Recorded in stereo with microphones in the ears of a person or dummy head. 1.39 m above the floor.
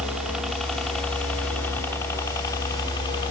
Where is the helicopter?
5° right (ahead or behind); by 3.3 s 25° left (ahead or behind).